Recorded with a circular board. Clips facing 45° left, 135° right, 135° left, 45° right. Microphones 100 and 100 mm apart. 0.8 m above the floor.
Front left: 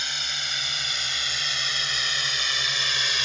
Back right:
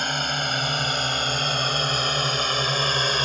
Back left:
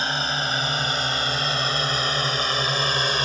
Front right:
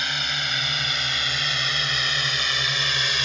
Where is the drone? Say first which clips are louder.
Back right 10 dB, back left 4 dB; 170° right; by 3.2 s 175° right.